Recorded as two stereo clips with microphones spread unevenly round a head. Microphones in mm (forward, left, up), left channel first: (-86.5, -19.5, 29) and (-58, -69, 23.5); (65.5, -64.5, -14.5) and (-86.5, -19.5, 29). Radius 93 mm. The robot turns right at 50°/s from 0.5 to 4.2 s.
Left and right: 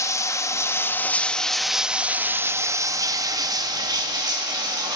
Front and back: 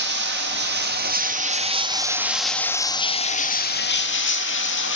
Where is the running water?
150° left, 0.9 m; by 5.0 s 25° right, 0.9 m.